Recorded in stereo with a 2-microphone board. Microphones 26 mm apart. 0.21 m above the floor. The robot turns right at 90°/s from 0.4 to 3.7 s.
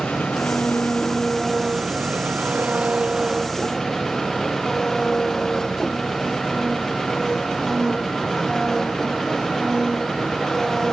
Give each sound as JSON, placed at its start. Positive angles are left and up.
{"t": 0.0, "sound": "an engine running", "azimuth_deg": 85}